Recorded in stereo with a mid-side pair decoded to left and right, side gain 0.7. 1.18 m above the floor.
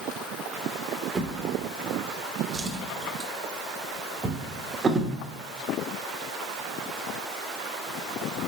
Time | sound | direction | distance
1.1 | a drawer | 20° right | 0.9 m